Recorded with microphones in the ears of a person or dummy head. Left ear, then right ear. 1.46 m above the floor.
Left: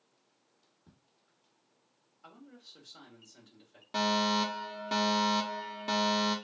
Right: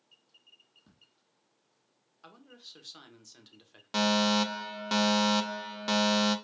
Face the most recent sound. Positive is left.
turn(degrees=-25)  # may be behind; listen again after turning